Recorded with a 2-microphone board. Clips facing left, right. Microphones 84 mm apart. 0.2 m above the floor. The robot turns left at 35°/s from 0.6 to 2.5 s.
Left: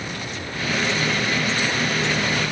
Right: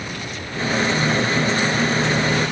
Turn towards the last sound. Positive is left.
No sound to turn to.